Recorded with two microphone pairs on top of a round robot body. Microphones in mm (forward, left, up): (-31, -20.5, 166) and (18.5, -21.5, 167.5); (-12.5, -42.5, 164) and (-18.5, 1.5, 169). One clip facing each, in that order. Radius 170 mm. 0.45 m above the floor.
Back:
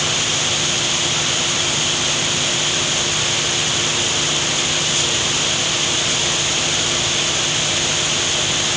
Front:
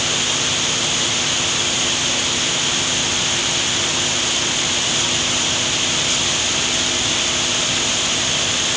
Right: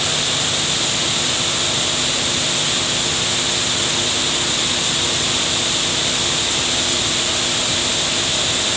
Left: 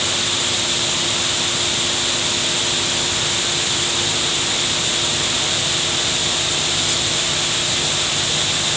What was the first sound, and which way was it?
Only background noise.